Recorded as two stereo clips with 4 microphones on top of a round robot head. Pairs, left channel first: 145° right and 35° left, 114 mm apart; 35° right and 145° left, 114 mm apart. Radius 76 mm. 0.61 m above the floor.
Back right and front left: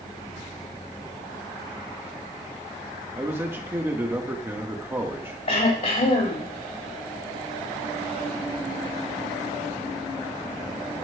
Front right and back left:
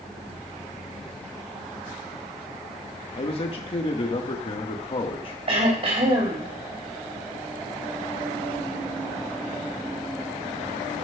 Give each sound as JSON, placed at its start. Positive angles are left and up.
{"t": 3.2, "sound": "a man speaking", "azimuth_deg": -30, "distance_m": 1.3}
{"t": 5.5, "sound": "throat clearing", "azimuth_deg": 180, "distance_m": 4.0}